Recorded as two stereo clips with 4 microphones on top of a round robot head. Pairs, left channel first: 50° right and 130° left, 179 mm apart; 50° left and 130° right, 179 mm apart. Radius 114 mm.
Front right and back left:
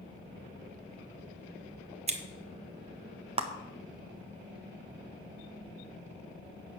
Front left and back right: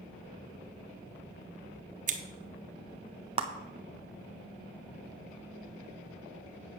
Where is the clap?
Straight behind, 0.6 m.